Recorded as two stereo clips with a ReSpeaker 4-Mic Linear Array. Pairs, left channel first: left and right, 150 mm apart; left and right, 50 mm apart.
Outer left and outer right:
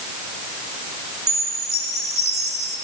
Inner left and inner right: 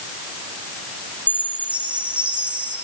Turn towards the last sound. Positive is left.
turn(degrees=-20)  # may be behind; listen again after turning